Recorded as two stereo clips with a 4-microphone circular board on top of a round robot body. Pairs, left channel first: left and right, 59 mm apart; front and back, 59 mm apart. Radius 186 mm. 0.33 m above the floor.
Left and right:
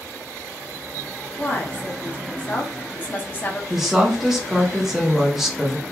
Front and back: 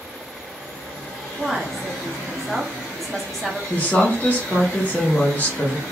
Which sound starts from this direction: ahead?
A woman speaking, at 3.7 s.